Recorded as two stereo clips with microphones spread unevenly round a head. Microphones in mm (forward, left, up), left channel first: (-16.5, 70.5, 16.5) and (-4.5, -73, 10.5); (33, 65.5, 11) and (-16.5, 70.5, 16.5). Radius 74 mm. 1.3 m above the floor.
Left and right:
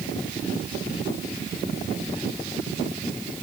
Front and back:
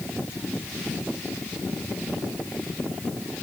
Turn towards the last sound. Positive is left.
No sound to turn to.